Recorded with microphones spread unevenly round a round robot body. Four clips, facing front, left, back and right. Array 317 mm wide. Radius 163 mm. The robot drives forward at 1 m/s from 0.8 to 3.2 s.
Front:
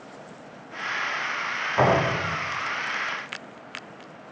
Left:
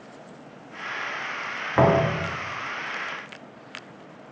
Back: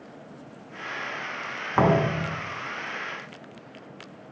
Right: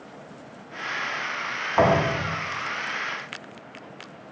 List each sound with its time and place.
1.8 s a thud: 130° left, 3.5 m; by 2.3 s 135° left, 4 m